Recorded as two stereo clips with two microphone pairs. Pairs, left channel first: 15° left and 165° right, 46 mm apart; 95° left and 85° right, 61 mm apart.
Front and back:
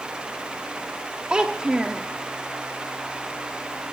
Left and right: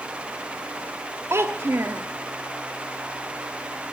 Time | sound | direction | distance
1.3 | a child speaking | 100° right | 0.6 m